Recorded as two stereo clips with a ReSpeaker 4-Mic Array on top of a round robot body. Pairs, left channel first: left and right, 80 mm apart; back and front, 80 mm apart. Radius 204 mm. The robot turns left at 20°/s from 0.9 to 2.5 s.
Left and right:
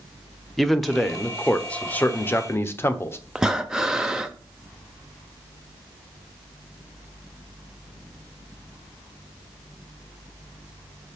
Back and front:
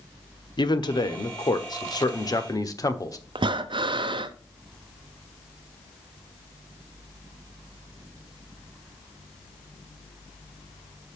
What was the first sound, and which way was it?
A man speaking, straight behind.